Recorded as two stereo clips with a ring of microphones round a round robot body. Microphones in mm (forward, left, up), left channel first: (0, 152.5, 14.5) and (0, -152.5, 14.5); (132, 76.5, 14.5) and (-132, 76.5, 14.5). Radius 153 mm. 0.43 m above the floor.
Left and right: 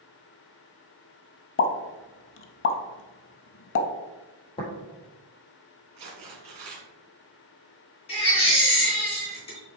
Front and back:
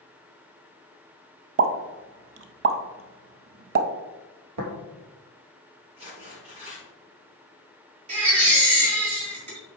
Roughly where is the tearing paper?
Right.